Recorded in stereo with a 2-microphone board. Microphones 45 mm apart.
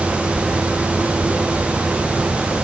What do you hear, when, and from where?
Only background noise.